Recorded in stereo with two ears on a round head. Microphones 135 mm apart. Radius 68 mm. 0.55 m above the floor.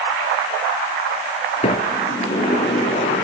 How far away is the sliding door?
About 1.9 m.